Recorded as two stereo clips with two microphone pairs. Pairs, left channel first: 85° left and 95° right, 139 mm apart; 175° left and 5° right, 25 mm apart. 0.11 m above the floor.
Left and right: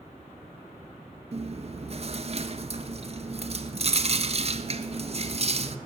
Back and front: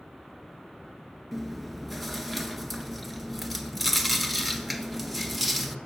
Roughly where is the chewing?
Right.